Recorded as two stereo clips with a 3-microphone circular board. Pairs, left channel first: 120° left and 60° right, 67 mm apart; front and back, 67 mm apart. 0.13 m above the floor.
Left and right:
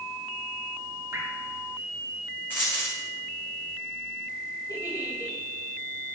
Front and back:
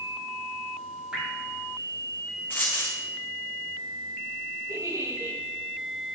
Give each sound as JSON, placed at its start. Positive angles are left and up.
{"t": 1.1, "sound": "dripping", "azimuth_deg": -105, "distance_m": 4.5}
{"t": 2.5, "sound": "a dropped coin", "azimuth_deg": 60, "distance_m": 2.5}
{"t": 4.7, "sound": "a giggle", "azimuth_deg": 140, "distance_m": 6.0}